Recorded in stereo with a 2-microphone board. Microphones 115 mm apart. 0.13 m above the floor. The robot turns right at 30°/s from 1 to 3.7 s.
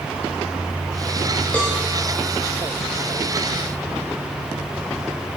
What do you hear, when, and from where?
1.5 s a cowbell: 15° left (ahead or behind), 8 m; by 1.8 s 5° left (ahead or behind), 8 m